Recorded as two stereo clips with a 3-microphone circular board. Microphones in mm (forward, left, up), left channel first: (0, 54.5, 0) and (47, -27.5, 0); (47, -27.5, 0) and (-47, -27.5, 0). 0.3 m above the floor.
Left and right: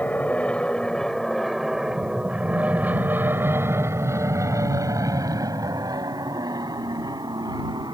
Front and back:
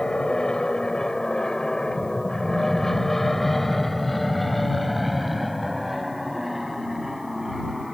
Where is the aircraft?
70° left; by 8.0 s 95° right.